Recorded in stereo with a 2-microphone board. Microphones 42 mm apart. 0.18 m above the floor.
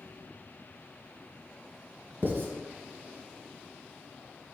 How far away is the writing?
About 1.6 m.